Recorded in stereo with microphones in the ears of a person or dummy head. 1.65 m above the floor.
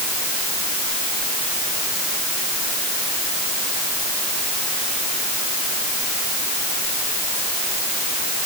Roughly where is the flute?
No flute in this recording.